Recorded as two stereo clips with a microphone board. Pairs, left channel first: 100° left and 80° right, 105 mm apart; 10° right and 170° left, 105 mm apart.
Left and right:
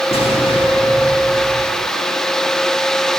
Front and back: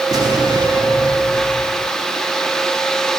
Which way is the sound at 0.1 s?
120° left.